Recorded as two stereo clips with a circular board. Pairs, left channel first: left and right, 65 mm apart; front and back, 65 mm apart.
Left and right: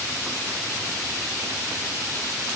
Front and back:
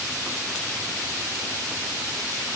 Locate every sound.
Only background noise.